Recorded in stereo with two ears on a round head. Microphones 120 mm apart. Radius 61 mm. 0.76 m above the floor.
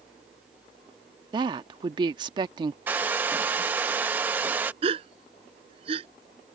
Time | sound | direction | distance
1.3 | a woman speaking | 35° right (ahead or behind) | ?
2.9 | a hair dryer | 15° right (ahead or behind) | ?
4.8 | a gasp | 40° right (ahead or behind) | ?